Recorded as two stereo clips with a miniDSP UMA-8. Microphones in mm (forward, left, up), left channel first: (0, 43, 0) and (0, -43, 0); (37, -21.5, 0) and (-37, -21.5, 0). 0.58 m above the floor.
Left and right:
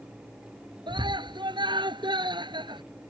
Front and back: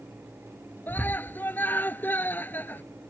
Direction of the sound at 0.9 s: 65° right.